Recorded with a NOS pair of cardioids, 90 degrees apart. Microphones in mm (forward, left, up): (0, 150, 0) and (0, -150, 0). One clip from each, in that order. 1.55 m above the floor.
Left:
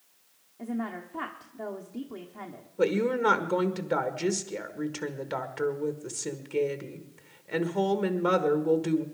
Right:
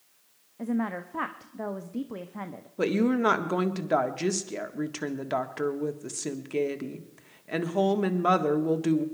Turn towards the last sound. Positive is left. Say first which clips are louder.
# even
turn(degrees=-20)